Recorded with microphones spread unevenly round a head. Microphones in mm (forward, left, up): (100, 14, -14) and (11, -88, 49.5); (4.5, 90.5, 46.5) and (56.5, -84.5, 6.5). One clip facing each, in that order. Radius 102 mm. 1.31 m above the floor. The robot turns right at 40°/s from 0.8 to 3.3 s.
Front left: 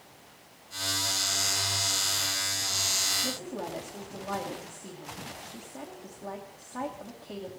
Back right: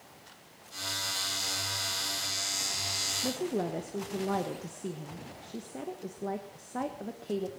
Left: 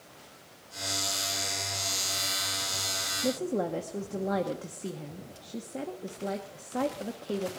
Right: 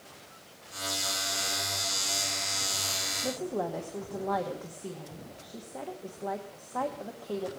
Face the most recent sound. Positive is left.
turn(degrees=175)